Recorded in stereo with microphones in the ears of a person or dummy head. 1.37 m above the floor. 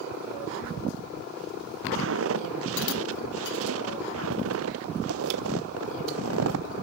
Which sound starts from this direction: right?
Footsteps, at 1.9 s.